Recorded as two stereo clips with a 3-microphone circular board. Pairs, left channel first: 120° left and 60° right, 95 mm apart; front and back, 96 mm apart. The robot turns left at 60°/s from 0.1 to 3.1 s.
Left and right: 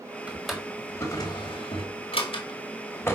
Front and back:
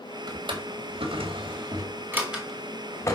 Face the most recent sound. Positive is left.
turn(degrees=55)